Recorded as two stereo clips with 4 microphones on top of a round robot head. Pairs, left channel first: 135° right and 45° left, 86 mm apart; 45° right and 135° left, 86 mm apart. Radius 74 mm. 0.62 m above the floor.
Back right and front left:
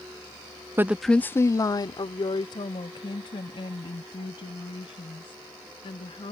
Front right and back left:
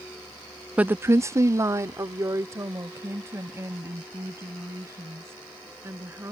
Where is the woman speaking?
75° left; by 6.3 s 160° right.